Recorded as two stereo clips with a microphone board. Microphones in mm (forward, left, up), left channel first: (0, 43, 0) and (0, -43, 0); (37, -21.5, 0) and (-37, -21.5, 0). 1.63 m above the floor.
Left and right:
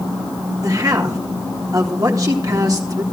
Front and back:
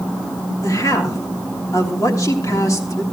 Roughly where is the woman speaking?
Ahead right.